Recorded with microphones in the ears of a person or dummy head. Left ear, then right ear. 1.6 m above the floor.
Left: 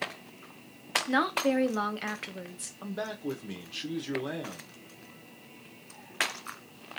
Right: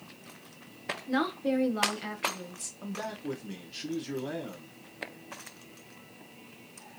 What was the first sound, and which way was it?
A woman speaking, 20° left (ahead or behind).